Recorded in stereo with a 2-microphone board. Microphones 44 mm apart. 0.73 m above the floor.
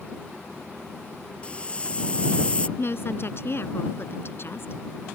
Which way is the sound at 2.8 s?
55° left (ahead or behind).